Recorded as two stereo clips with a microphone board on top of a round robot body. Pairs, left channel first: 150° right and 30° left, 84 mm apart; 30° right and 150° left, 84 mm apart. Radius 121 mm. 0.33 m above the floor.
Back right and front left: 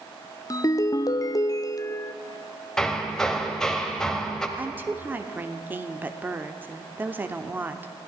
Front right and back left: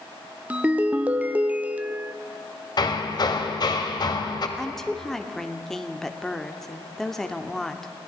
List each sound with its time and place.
0.5 s a ringtone: 145° right, 0.8 m
2.8 s hammering: 65° right, 1.3 m
4.6 s a woman speaking: 50° left, 0.9 m